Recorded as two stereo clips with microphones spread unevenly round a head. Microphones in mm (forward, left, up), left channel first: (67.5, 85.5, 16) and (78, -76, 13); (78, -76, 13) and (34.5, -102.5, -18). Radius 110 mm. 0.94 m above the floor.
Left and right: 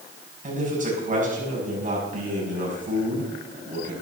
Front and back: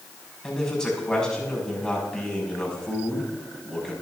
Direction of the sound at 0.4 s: 45° right.